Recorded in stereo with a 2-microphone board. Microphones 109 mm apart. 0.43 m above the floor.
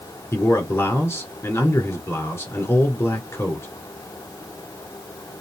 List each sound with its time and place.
0.3 s a man speaking: 25° left (ahead or behind), 1.3 m